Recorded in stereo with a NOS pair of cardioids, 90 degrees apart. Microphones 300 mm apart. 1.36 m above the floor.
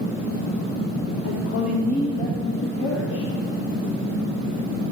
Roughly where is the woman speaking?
Ahead left.